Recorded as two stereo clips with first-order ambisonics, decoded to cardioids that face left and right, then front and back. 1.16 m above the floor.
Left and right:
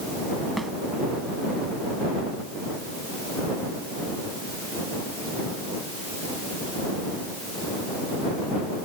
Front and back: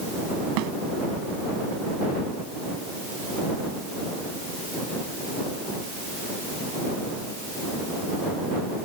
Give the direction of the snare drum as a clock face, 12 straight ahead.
6 o'clock.